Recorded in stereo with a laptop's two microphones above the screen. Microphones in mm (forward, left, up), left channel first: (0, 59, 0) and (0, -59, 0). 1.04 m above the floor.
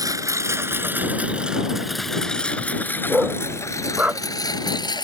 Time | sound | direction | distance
0.0 | a lawn mower | 30° right (ahead or behind) | ?
3.1 | a dog barking | 10° right (ahead or behind) | ?